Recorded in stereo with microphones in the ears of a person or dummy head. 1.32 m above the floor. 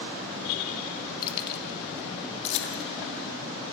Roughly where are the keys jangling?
Left.